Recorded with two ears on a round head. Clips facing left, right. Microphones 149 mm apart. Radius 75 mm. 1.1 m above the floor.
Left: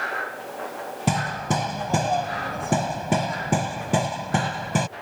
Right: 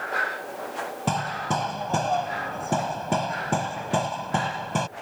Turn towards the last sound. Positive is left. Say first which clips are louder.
# left 3 dB
turn(degrees=15)  # may be behind; listen again after turning